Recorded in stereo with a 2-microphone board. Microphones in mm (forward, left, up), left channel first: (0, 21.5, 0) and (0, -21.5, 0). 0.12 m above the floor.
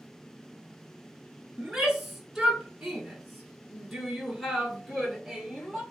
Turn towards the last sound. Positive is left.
turn(degrees=5)  # may be behind; listen again after turning